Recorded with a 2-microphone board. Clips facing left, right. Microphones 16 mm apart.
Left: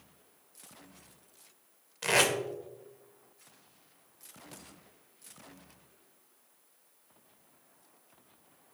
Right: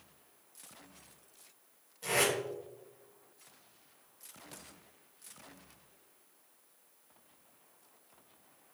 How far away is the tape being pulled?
About 0.6 m.